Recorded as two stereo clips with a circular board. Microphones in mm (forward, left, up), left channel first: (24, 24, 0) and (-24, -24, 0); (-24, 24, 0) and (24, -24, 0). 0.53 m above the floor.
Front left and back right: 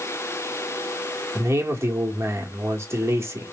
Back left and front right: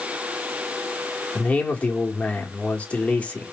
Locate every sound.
1.4 s a man speaking: 160° right, 1.0 m